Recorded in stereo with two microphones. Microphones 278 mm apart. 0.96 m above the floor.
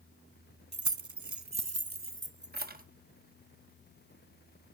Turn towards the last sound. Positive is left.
turn(degrees=-30)  # may be behind; listen again after turning